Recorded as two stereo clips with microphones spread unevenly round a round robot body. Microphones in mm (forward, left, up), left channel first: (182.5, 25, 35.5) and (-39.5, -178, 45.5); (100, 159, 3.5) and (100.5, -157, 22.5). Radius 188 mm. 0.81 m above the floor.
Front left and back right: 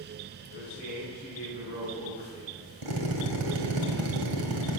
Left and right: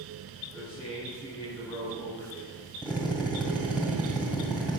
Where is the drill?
175° right, 2 m.